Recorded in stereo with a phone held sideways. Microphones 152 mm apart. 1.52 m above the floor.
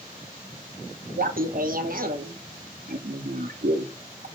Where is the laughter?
65° right (ahead or behind), 1.2 m.